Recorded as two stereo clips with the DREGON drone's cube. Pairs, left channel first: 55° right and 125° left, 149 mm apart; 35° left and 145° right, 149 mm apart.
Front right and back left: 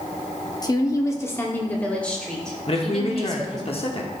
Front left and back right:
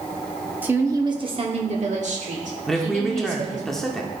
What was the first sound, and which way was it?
A woman speaking, 80° right.